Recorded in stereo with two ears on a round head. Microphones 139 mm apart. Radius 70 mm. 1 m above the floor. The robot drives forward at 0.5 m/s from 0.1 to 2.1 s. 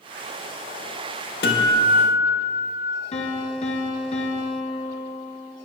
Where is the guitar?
75° left (ahead or behind), 1.5 m; by 3.0 s 65° left (ahead or behind), 1.6 m.